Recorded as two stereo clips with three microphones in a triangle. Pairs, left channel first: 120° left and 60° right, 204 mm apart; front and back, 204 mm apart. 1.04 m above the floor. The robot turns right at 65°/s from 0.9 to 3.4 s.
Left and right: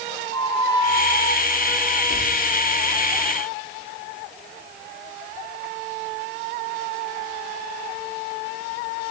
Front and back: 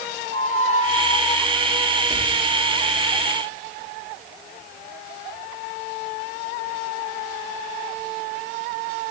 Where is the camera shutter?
I don't hear a camera shutter.